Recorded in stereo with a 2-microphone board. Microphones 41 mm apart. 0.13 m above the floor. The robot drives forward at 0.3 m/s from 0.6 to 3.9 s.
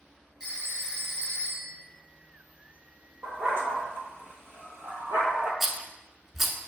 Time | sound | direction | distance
0.4 | a phone ringing | 20° right (ahead or behind) | 1.7 m
3.2 | a dog barking | 75° right (ahead or behind) | 1.1 m
5.6 | a rattle | 5° right (ahead or behind) | 0.5 m